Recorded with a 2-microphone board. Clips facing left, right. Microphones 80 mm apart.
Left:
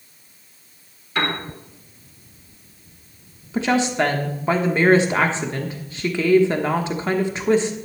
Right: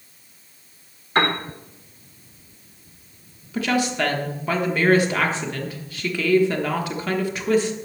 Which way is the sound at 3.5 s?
25° left (ahead or behind).